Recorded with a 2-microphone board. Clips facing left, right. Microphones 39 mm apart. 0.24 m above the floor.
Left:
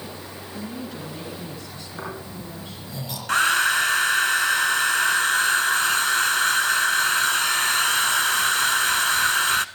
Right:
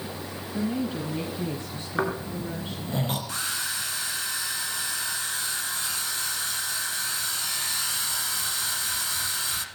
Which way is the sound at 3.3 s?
65° left (ahead or behind).